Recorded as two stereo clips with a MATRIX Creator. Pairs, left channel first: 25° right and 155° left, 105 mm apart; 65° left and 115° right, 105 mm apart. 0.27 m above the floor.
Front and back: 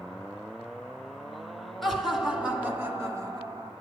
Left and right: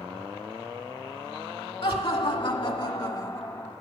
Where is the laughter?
65° left, 1.8 m; by 3.7 s 130° left, 1.4 m.